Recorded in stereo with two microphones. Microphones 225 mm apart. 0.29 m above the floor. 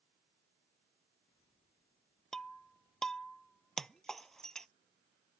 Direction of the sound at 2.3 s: Centre (ahead or behind).